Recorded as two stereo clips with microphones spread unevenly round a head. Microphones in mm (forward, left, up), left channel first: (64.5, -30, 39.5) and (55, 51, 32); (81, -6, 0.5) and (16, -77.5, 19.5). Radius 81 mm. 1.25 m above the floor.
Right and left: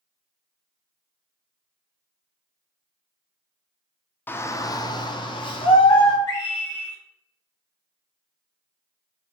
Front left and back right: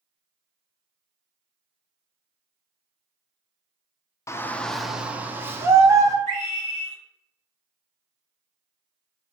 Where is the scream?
135° right, 0.9 m.